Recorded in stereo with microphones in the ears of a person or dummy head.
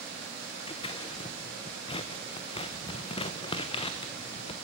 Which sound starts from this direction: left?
Scissors, at 0.7 s.